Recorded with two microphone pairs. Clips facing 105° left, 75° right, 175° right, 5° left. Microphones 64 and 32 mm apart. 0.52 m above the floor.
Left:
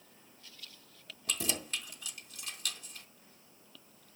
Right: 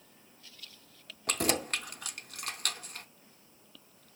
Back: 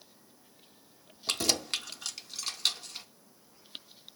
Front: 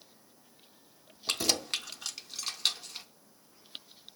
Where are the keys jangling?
70° right, 0.6 m.